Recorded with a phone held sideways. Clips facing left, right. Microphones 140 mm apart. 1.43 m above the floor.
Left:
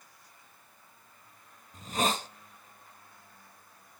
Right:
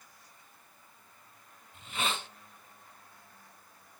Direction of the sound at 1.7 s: 40° left (ahead or behind).